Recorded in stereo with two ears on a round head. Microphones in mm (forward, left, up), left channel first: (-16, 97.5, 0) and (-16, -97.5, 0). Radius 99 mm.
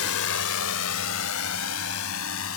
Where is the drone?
75° left (ahead or behind); by 2.6 s 65° left (ahead or behind).